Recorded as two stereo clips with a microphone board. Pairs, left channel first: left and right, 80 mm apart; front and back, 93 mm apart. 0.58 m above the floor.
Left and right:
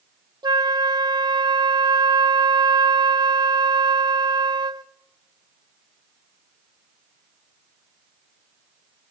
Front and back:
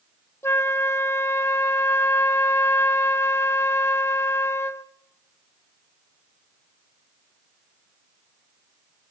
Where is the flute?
60° right, 0.5 m.